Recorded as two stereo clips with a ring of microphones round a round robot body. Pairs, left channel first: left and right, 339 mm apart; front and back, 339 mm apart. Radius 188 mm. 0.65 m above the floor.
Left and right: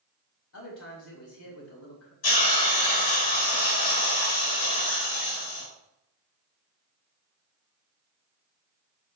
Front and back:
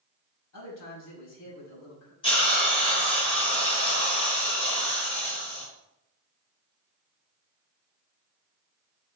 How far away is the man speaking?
About 4.5 m.